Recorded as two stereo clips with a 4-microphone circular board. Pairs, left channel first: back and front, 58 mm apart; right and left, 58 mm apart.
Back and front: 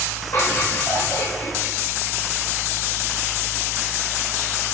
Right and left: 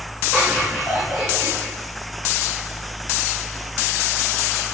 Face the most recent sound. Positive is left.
turn(degrees=-160)